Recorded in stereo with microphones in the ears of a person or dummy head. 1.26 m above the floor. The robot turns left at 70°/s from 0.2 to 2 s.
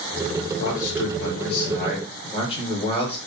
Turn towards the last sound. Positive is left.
turn(degrees=25)